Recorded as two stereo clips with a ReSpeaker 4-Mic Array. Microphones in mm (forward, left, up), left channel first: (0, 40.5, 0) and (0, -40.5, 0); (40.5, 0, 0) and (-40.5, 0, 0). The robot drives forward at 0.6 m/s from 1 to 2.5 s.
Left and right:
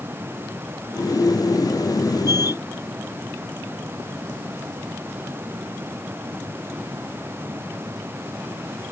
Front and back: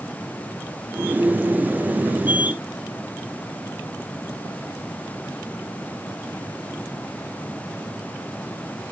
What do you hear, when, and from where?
Only background noise.